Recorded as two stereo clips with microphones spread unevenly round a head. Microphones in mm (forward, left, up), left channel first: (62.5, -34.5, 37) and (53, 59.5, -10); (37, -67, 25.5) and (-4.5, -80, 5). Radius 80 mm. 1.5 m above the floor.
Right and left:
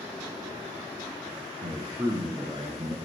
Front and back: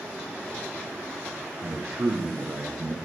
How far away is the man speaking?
About 1.2 m.